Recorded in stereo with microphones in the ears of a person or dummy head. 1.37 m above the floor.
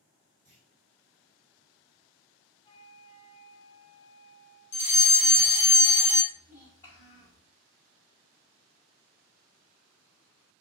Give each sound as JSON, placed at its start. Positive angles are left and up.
{"t": 0.5, "sound": "a clunk", "side_deg": 10, "distance_m": 1.7}
{"t": 2.6, "sound": "a flute", "side_deg": 30, "distance_m": 0.6}
{"t": 4.7, "sound": "a fire alarm", "side_deg": 25, "distance_m": 0.8}
{"t": 6.3, "sound": "a child speaking", "side_deg": 15, "distance_m": 2.0}